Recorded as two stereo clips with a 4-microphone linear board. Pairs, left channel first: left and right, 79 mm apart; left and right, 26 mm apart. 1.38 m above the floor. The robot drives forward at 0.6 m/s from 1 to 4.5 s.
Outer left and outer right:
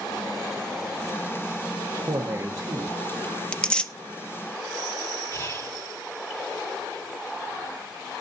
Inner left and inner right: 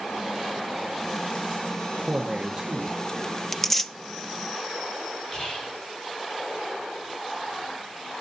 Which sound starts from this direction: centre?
Tearing paper, at 3.5 s.